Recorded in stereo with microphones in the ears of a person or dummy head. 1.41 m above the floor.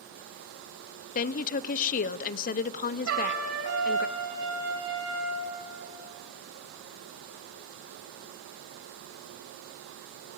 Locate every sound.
1.1 s a woman speaking: 40° left (ahead or behind), 0.6 m
3.1 s a trumpet: 70° right (ahead or behind), 3.5 m